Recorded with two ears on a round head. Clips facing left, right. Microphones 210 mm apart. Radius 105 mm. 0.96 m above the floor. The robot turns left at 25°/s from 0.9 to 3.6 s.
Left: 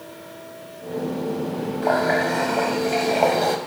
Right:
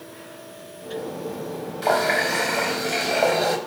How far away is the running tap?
About 4 m.